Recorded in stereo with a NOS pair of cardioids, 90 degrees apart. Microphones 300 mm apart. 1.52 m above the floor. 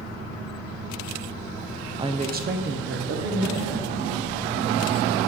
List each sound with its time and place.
2.0 s a woman speaking: 15° right, 0.5 m; by 4.1 s 55° right, 1.6 m